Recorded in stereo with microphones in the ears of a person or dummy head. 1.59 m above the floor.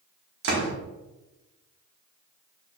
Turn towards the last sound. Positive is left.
turn(degrees=-70)  # may be behind; listen again after turning